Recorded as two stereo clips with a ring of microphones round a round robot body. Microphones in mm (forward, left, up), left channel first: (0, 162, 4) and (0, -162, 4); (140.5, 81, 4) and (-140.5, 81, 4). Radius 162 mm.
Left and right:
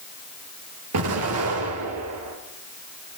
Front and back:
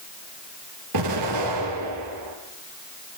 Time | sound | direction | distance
0.9 | an explosion | 135° right | 4 m